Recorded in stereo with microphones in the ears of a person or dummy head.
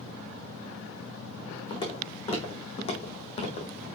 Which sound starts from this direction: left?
Footsteps, at 1.7 s.